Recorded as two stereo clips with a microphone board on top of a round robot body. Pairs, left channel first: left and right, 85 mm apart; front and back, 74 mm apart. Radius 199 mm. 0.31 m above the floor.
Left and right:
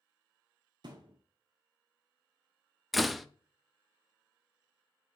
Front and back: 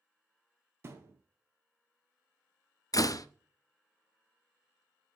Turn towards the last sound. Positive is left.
turn(degrees=0)